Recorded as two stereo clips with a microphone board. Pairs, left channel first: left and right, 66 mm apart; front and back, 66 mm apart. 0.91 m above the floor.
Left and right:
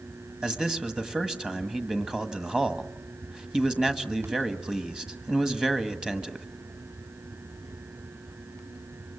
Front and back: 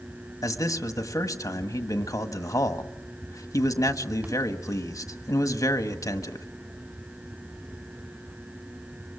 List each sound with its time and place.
0.4 s a man speaking: 15° right, 1.4 m